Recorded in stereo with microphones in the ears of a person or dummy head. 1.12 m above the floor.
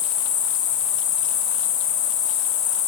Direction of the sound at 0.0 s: 40° left (ahead or behind).